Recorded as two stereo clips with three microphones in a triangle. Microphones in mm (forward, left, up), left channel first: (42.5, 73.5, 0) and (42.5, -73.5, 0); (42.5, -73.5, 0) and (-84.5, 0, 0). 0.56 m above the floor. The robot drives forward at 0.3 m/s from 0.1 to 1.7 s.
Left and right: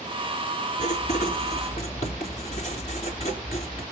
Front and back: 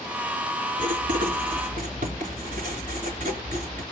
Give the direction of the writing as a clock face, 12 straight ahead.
8 o'clock.